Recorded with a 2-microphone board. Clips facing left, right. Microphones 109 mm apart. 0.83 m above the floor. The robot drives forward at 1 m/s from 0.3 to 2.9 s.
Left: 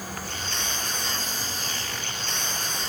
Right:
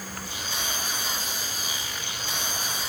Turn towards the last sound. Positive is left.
turn(degrees=65)  # may be behind; listen again after turning